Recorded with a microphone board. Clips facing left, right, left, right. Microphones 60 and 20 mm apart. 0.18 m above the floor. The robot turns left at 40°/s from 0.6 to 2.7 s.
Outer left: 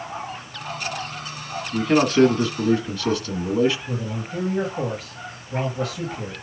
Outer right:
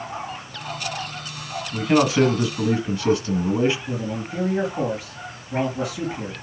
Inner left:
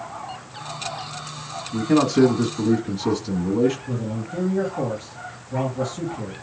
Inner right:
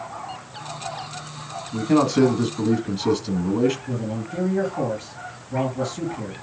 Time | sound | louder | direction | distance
1.7 | a man speaking | even, even | 5° right (ahead or behind) | 1.2 m
3.9 | a man speaking | outer right 2 dB, even | 10° right (ahead or behind) | 3 m